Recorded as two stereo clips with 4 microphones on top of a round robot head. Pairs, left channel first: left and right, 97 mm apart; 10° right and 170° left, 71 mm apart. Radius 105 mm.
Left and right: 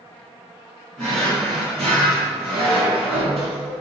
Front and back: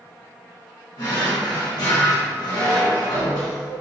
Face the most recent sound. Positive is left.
turn(degrees=10)